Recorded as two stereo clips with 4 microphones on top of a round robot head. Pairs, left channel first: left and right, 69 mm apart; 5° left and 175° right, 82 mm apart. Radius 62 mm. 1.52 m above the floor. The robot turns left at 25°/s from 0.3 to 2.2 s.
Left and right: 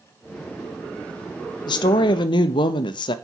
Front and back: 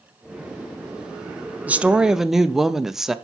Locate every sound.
1.7 s a woman speaking: 110° left, 0.5 m; by 3.1 s 100° left, 0.5 m